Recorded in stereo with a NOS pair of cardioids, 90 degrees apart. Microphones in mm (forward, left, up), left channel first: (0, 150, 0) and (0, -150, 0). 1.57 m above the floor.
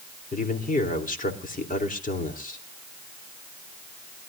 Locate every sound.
0.3 s a man speaking: 25° left, 3.5 m